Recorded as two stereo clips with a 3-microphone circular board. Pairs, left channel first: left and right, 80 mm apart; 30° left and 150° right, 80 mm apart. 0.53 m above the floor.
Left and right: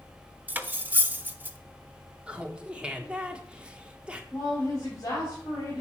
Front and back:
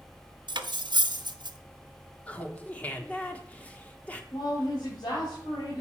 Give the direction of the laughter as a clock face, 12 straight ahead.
1 o'clock.